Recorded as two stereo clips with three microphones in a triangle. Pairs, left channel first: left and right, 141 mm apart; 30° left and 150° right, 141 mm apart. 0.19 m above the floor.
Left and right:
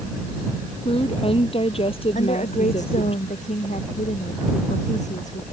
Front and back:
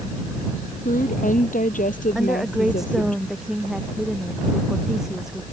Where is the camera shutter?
I don't hear a camera shutter.